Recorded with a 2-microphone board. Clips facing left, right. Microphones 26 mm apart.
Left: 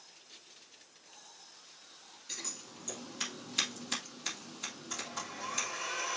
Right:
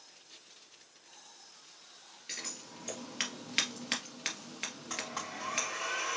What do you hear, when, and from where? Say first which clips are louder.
2.3 s scissors: right 1 dB; 55° right (ahead or behind), 2 m
4.9 s a blender: right 2 dB; 50° right (ahead or behind), 3.5 m